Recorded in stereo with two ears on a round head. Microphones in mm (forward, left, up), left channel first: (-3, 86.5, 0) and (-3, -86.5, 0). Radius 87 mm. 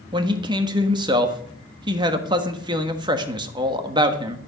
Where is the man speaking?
25° right (ahead or behind), 1.4 m.